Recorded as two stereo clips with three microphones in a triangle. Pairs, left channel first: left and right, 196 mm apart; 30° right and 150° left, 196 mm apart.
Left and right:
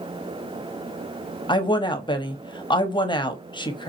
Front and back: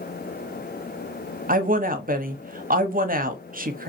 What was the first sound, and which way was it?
A woman speaking, 145° left.